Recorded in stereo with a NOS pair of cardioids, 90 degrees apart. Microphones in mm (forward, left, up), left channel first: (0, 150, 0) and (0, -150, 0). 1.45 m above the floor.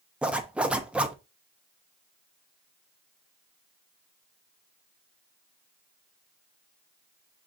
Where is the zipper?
5° right, 0.6 m.